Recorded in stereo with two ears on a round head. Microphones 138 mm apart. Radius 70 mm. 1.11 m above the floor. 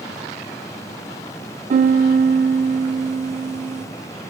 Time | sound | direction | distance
1.7 | a piano | 50° right (ahead or behind) | 0.8 m